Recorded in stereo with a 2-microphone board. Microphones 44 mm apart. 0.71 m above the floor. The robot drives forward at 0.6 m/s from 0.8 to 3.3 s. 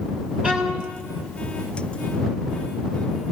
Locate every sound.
0.4 s a violin: 30° right (ahead or behind), 6 m